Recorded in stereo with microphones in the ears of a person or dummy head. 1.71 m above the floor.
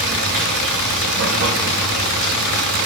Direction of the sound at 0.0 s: 60° right (ahead or behind).